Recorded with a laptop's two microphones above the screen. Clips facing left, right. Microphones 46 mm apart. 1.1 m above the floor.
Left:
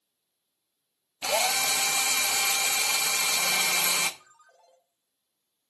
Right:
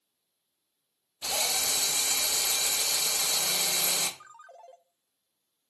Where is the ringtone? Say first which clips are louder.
Right 9 dB; 40° right (ahead or behind), 0.7 m.